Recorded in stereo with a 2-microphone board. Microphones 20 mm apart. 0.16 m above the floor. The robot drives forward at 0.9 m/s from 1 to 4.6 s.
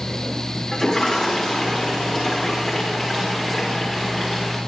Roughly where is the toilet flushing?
Left.